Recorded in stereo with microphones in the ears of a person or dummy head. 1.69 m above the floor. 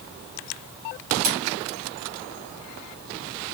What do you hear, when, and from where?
1.2 s cutlery clinking: 40° right (ahead or behind), 1.0 m